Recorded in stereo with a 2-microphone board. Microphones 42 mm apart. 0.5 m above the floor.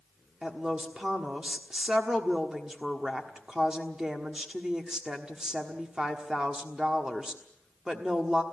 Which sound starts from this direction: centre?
A woman speaking, at 0.4 s.